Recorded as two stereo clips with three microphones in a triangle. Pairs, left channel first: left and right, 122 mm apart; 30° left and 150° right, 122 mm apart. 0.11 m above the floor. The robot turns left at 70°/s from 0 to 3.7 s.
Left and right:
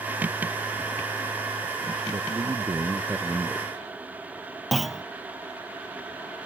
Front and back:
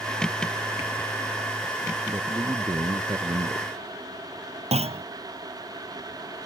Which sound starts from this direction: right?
A man speaking, at 2.1 s.